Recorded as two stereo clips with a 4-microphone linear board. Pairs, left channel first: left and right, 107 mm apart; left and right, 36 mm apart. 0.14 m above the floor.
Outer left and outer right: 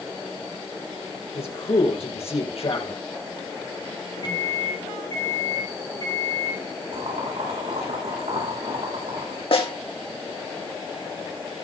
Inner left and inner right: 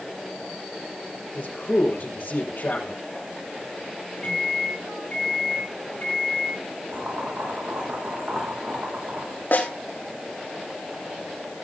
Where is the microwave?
40° left (ahead or behind), 3.5 m.